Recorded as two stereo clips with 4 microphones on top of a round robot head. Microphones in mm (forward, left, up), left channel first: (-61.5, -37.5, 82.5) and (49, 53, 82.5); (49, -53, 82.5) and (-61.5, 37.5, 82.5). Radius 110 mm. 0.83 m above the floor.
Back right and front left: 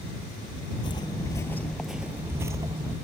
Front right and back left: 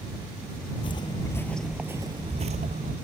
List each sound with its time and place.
0.8 s footsteps: 85° right; by 2.9 s 100° left